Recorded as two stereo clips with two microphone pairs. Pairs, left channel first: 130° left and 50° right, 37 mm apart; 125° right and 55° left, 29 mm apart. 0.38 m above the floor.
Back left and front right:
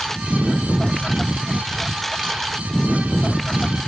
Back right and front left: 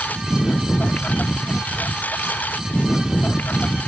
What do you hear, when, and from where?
0.0 s a lawn mower: 150° right; by 3.9 s 145° right